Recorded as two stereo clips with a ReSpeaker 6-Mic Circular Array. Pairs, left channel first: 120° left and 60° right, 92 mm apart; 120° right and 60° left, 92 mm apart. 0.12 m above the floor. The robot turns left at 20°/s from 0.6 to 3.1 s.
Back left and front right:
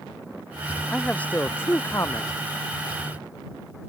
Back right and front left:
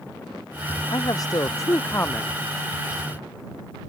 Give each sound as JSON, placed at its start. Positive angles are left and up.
{"t": 0.9, "sound": "a man speaking", "azimuth_deg": -160}